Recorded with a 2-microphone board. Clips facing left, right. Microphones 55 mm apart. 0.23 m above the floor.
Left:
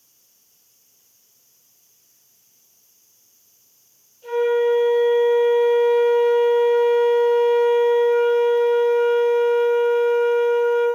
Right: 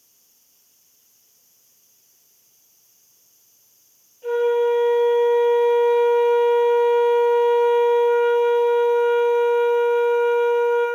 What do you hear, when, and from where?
4.2 s a flute: 30° right (ahead or behind), 1.4 m